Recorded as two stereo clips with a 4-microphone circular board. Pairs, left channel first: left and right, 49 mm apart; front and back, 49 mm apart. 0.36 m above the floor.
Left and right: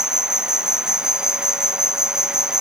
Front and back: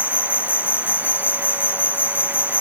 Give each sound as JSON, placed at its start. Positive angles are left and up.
{"t": 0.0, "sound": "an insect", "azimuth_deg": -15, "distance_m": 0.7}